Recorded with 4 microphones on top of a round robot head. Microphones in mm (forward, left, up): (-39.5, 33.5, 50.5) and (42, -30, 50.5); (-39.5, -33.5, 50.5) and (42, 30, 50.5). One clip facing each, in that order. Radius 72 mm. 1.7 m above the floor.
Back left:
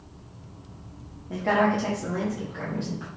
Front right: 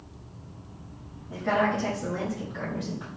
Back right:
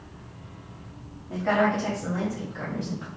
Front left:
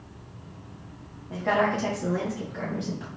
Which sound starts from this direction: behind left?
A woman speaking, at 1.3 s.